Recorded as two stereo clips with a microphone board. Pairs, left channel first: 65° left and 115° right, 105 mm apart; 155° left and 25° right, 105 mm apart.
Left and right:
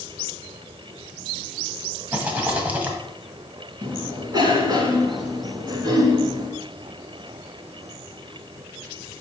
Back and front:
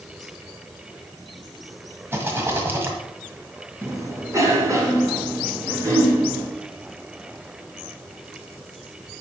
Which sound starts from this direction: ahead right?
A rattle, at 2.1 s.